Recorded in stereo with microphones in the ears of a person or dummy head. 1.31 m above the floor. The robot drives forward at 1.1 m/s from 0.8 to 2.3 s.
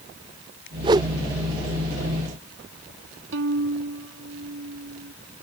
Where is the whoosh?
20° right (ahead or behind); by 1.1 s 15° right (ahead or behind).